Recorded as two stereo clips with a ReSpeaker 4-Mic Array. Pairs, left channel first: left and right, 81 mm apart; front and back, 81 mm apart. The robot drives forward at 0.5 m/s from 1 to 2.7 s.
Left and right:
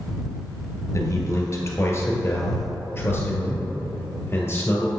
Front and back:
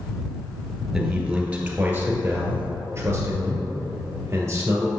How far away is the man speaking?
About 1.4 m.